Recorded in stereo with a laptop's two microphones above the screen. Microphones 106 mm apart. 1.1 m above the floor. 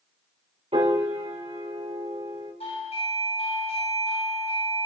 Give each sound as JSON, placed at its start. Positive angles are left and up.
{"t": 0.7, "sound": "a piano", "side_deg": -75, "distance_m": 5.0}
{"t": 2.6, "sound": "a doorbell", "side_deg": 70, "distance_m": 9.0}